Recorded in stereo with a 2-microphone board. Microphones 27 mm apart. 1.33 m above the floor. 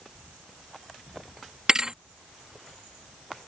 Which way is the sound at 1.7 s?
30° right (ahead or behind).